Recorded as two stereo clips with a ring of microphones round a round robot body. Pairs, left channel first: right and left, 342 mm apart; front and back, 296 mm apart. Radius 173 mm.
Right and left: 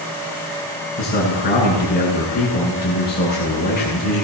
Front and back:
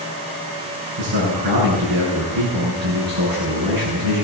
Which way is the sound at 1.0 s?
155° right.